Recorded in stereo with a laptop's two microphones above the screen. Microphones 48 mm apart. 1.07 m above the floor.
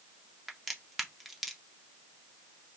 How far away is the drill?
No drill in this recording.